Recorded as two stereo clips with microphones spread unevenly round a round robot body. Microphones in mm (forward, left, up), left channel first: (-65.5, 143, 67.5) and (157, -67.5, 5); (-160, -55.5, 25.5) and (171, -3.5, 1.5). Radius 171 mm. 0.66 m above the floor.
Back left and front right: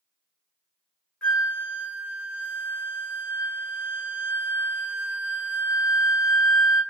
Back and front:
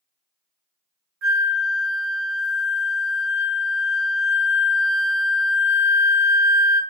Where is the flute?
40° left, 0.7 m.